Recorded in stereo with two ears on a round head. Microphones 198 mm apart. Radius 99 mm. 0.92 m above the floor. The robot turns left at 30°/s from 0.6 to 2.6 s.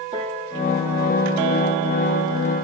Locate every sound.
0.1 s a piano: 25° right (ahead or behind), 6 m; by 1.5 s 50° right (ahead or behind), 6 m